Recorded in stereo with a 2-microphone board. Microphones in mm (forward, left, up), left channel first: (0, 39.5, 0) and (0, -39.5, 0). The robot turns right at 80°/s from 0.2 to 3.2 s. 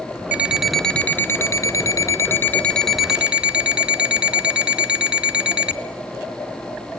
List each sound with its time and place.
0.3 s an alarm clock: 35° right, 0.9 m; by 5.8 s 160° right, 0.9 m